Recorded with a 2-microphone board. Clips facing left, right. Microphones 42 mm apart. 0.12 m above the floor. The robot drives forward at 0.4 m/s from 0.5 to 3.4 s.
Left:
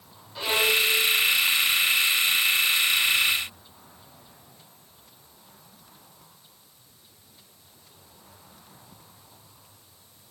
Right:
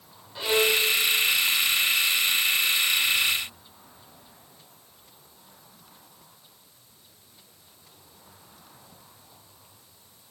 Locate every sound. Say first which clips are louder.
0.3 s a violin: even; 15° right (ahead or behind), 2 m; by 0.8 s 10° right (ahead or behind), 2.5 m